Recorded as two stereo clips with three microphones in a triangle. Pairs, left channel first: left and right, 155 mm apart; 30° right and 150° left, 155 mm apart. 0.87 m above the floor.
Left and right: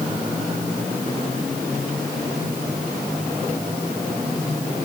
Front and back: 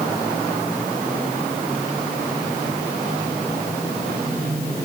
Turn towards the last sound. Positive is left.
No sound to turn to.